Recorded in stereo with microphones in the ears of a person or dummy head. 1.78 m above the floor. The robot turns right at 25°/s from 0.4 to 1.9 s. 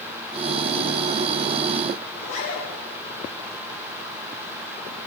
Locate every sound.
2.1 s a zipper: 40° left (ahead or behind), 7.5 m